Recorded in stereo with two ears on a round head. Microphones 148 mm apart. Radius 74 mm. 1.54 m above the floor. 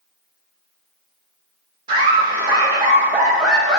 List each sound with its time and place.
1.9 s laughter: 30° right (ahead or behind), 1.6 m; by 3.8 s 5° left (ahead or behind), 1.2 m